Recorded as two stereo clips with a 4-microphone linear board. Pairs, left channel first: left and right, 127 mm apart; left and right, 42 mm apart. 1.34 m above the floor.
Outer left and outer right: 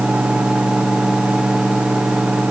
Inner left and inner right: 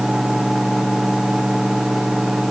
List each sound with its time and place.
Only background noise.